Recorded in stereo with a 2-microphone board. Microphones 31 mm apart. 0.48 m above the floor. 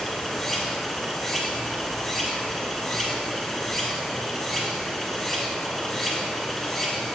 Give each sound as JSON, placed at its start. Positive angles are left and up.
{"t": 0.0, "sound": "running water", "side_deg": 5, "distance_m": 2.0}